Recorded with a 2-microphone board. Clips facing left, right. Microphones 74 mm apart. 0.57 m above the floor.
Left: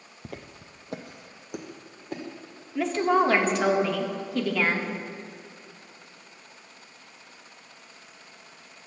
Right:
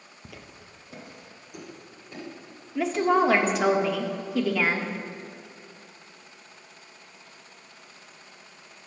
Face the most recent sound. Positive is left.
turn(degrees=-5)  # may be behind; listen again after turning